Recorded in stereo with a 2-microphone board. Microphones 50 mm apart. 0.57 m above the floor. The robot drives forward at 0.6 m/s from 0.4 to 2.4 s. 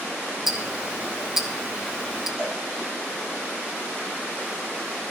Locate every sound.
0.5 s ticking: 5° right (ahead or behind), 2 m; by 2.3 s 10° right (ahead or behind), 1.3 m
2.4 s a cowbell: 25° left (ahead or behind), 9 m